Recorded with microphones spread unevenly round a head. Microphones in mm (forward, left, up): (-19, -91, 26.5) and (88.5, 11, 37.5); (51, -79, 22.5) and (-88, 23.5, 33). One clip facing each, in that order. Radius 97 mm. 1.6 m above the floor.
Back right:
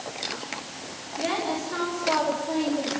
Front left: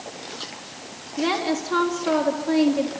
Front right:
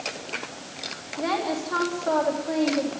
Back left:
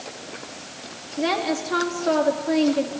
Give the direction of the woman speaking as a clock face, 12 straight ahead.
9 o'clock.